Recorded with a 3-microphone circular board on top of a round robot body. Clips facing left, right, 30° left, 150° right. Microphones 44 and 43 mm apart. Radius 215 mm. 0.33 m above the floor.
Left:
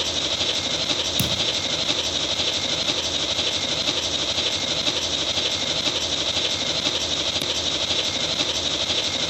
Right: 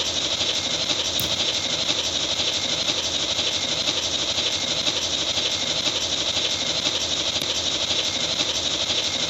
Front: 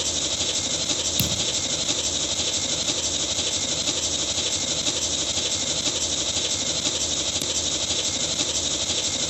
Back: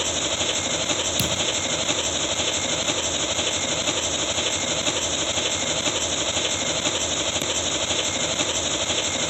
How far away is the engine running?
About 0.8 m.